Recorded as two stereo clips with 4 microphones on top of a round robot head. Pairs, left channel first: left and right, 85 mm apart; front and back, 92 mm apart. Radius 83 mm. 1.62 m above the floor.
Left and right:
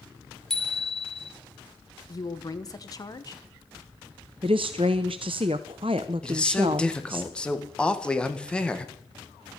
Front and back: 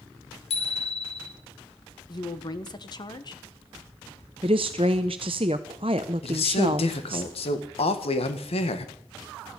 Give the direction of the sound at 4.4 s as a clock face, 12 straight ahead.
4 o'clock.